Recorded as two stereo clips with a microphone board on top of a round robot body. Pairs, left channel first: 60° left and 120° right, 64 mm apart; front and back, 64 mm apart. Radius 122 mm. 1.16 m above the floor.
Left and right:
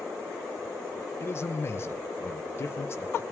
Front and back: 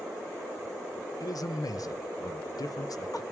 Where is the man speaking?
10° left, 0.7 m.